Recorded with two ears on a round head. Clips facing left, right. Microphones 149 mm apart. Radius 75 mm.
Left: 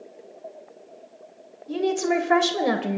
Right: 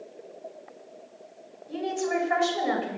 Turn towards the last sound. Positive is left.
turn(degrees=60)  # may be behind; listen again after turning